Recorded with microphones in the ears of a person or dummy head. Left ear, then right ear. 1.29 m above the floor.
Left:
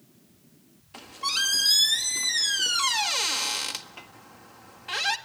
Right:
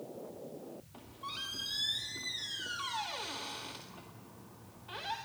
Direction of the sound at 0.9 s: 65° left (ahead or behind).